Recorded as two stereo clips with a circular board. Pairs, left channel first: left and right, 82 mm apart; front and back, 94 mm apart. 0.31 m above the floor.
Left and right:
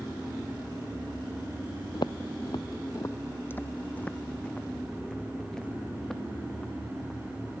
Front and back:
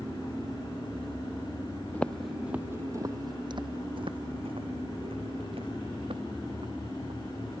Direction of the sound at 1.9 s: 70° left.